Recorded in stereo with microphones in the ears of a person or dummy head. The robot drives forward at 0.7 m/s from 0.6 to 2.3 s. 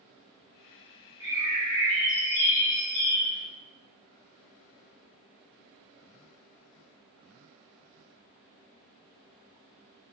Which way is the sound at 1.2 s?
20° right (ahead or behind).